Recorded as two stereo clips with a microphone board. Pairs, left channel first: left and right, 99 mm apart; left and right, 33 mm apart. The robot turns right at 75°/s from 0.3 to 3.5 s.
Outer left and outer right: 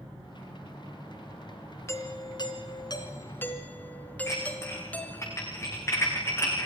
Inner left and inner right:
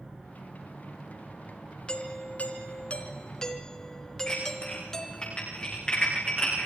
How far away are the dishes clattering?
About 10 m.